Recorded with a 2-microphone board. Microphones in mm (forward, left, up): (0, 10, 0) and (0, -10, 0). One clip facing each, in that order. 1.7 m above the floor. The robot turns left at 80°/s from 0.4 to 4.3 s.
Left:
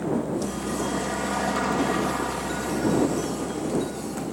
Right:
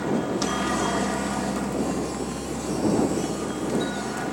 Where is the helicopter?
125° right; by 4.3 s 75° right.